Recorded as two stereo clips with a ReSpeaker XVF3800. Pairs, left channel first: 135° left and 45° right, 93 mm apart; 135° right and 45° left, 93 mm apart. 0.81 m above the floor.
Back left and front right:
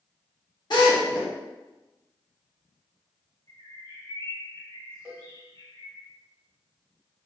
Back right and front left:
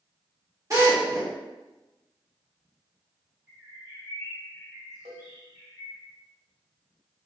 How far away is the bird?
About 1.9 m.